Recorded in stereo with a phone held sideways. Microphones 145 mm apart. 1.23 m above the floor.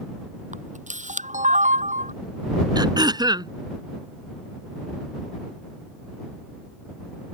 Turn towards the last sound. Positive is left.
turn(degrees=-30)  # may be behind; listen again after turning